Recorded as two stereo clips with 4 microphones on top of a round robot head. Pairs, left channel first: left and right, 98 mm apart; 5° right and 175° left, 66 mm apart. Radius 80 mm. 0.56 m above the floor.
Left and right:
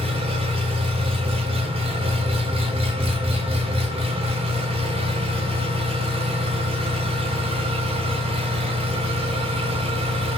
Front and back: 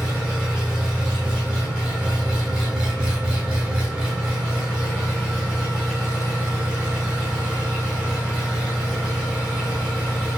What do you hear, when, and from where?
0.0 s an engine running: 110° right, 3.5 m